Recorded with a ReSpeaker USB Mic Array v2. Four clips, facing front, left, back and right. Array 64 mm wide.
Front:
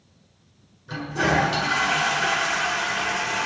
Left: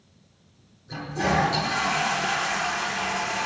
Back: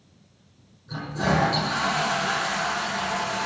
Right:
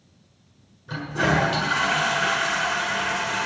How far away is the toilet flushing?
About 6.5 m.